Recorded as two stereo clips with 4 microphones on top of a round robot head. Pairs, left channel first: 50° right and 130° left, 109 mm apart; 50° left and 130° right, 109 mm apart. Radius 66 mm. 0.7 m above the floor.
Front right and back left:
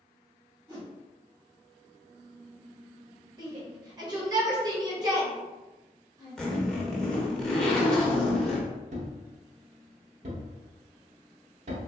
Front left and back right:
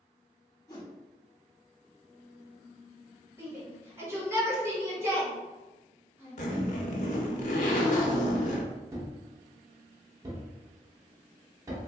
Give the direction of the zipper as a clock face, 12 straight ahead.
11 o'clock.